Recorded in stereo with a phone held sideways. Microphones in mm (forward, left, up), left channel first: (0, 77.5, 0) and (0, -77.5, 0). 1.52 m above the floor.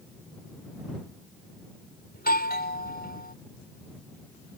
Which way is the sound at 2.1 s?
90° left.